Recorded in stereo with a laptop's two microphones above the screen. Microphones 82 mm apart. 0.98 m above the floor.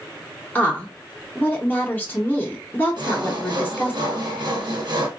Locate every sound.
0.6 s a woman speaking: 20° left (ahead or behind), 0.7 m
3.0 s sawing: 60° right (ahead or behind), 1.1 m